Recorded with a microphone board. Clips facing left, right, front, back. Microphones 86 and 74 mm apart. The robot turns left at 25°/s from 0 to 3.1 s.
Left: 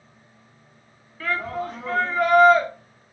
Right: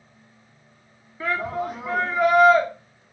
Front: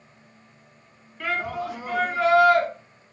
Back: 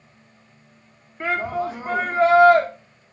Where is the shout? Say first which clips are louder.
Right 1 dB, back 4 dB; 145° right, 0.6 m; by 2.7 s straight behind, 0.6 m.